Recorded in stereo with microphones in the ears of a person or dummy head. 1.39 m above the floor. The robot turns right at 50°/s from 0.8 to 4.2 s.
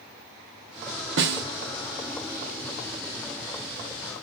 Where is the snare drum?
60° right (ahead or behind), 0.7 m; by 1.4 s 55° right (ahead or behind), 0.7 m.